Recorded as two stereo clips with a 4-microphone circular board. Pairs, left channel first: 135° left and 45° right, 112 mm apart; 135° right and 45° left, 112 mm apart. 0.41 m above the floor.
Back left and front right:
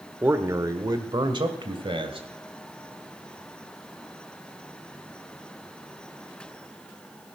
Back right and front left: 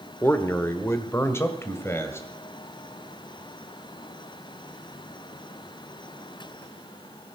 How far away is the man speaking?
About 1.2 m.